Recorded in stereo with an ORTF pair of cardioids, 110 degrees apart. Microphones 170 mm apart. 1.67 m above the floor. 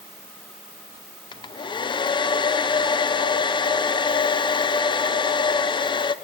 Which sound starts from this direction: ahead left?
A hair dryer, at 1.3 s.